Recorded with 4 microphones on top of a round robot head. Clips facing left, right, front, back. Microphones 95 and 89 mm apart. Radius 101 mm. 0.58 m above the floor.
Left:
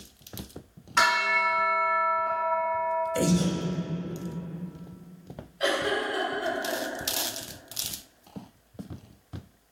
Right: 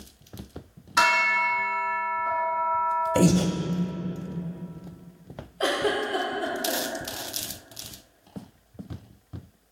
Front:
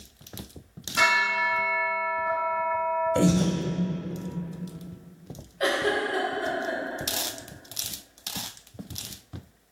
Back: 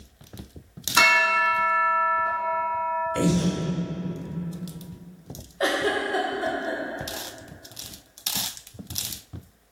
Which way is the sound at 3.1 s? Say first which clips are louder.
Right 6 dB, even; 60° right.